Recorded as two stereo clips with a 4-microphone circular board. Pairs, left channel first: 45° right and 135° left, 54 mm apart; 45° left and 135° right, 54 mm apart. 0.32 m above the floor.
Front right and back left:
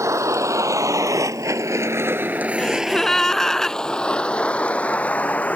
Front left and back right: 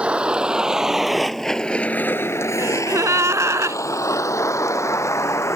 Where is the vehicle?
155° left; by 5.6 s 15° left.